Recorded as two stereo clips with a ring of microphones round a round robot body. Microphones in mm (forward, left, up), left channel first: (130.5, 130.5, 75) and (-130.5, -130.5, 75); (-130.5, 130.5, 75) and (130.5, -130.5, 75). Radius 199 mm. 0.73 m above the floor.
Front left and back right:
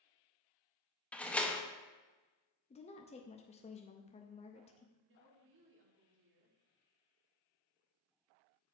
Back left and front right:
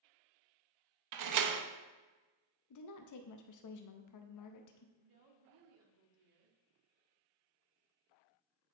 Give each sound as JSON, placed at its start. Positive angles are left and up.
{"t": 1.1, "sound": "a door slam", "azimuth_deg": -40, "distance_m": 0.8}
{"t": 2.7, "sound": "a woman speaking", "azimuth_deg": 115, "distance_m": 0.6}
{"t": 5.0, "sound": "a woman speaking", "azimuth_deg": -75, "distance_m": 1.6}